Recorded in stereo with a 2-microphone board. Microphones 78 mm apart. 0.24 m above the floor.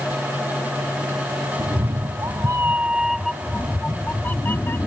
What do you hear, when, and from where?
1.6 s a cat meowing: 55° right (ahead or behind); by 4.9 s 30° left (ahead or behind)